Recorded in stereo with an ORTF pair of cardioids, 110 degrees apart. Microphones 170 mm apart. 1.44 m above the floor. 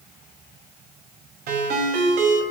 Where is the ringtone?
70° right, 7 m.